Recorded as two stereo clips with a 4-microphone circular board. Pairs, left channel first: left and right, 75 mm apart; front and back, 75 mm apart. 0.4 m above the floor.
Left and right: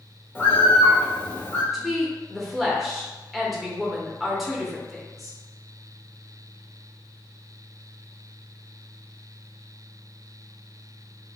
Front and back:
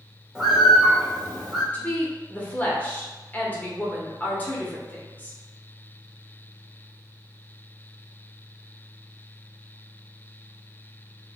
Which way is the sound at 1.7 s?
5° right.